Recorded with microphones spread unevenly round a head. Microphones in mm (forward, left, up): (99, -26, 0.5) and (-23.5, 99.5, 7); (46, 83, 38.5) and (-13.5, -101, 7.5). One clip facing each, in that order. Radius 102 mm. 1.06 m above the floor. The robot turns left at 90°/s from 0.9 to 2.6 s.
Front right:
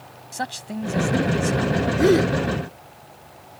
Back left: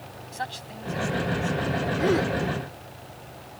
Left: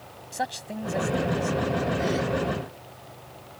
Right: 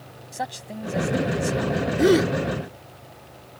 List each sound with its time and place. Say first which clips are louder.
0.3 s a man speaking: front right 7 dB, left 1 dB; 15° right; by 1.9 s 105° right
2.0 s a gasp: front right 7 dB, right 9 dB; 90° right; by 2.3 s 125° right